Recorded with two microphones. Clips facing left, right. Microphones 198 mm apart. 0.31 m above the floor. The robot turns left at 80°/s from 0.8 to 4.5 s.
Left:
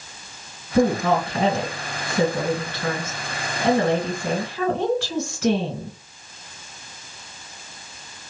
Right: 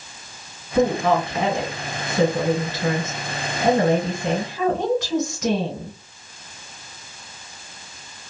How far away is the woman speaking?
About 1.8 m.